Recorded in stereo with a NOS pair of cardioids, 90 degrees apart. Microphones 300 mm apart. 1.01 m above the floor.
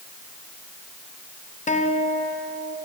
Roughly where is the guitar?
Ahead left.